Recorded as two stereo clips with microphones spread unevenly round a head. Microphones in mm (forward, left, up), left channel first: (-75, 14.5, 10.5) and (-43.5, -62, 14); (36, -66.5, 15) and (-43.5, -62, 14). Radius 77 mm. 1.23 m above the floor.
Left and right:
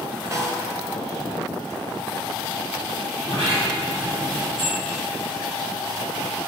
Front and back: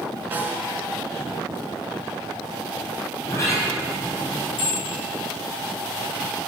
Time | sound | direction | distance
0.3 | a snare drum | 120° right | 4 m
3.2 | a sliding door | 55° right | 5.5 m
4.6 | a bell | 10° right | 5 m